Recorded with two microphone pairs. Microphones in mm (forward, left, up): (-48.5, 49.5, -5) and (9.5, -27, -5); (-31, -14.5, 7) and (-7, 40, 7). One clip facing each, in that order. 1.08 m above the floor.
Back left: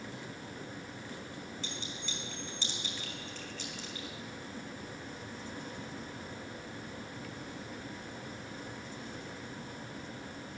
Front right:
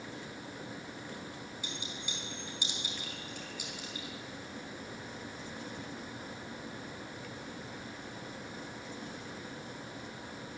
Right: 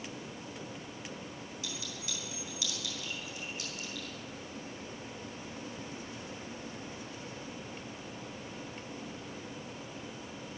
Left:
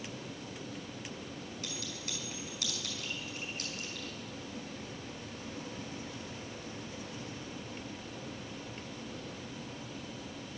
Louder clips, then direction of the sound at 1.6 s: Even, right 1 dB; 25° left.